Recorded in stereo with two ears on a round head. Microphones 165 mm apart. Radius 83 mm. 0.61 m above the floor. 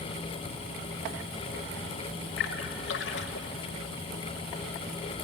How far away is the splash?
About 1.2 m.